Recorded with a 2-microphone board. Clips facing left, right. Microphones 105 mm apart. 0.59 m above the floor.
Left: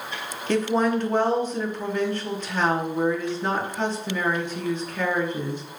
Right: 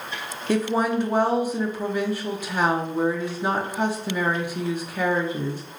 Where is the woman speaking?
10° right (ahead or behind), 0.7 m.